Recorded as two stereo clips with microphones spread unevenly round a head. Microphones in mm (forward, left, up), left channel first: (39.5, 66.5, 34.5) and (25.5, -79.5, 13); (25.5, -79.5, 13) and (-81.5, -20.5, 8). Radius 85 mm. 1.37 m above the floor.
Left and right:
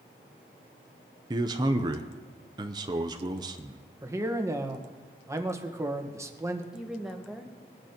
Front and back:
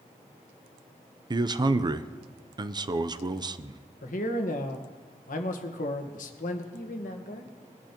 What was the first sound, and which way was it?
A man speaking, 155° right.